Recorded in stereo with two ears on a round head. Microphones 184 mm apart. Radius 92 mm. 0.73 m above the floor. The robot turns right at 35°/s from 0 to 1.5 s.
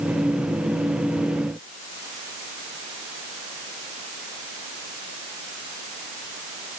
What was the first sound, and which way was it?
Only background noise.